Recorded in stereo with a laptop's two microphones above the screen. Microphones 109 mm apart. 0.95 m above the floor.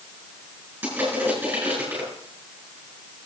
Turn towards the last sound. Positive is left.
turn(degrees=-20)  # may be behind; listen again after turning